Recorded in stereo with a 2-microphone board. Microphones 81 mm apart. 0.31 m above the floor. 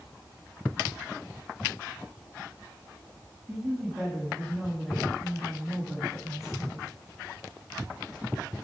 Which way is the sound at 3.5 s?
Centre (ahead or behind).